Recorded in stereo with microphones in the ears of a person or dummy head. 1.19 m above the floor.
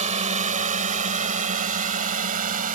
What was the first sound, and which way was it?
A drone, 30° right (ahead or behind).